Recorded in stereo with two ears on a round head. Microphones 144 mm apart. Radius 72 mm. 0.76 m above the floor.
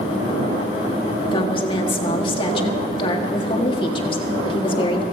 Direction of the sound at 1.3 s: 30° left (ahead or behind).